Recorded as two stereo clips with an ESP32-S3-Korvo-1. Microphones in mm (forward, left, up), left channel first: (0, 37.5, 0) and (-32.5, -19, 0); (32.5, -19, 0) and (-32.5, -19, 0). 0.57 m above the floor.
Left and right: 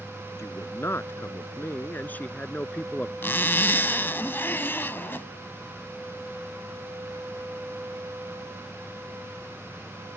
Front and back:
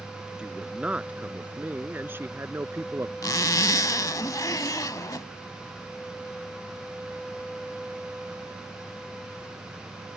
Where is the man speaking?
105° left; by 3.1 s 135° left.